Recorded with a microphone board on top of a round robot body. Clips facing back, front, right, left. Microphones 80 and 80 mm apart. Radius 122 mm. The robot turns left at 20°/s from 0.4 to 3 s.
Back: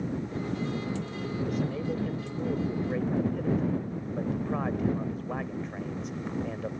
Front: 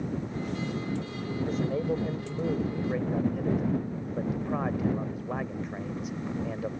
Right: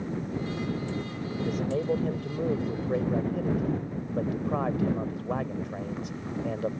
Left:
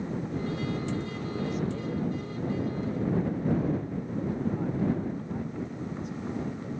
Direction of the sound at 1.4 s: 55° right.